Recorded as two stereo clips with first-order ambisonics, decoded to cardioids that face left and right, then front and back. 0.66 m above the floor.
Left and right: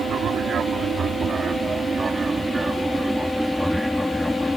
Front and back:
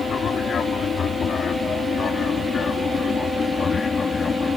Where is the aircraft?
50° right; by 4.6 s 25° left.